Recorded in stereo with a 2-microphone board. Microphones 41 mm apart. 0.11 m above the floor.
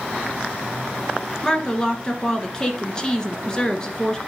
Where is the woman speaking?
20° left (ahead or behind), 1.4 m.